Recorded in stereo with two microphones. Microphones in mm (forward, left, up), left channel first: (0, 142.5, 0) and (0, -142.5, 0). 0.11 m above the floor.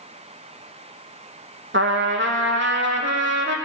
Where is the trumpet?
45° right (ahead or behind), 1.1 m.